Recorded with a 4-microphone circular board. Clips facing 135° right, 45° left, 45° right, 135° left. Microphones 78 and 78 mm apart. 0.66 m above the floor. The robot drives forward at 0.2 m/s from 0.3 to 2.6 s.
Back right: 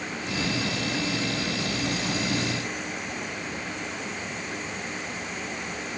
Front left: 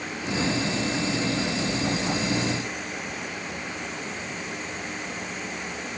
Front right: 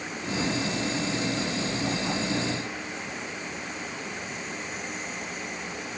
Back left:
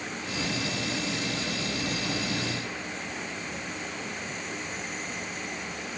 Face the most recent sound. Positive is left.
No sound to turn to.